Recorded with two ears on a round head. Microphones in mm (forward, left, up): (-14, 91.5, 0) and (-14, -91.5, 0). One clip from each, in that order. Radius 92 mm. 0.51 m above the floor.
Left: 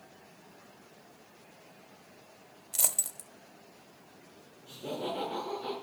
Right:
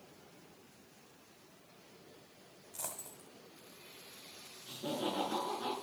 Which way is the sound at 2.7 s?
85° left.